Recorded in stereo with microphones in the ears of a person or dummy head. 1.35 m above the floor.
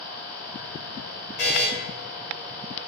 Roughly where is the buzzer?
Left.